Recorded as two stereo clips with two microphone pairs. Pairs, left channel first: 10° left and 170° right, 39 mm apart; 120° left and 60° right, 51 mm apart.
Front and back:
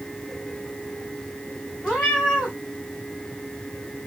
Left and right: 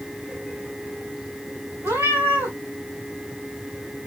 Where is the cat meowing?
55° right, 3 m.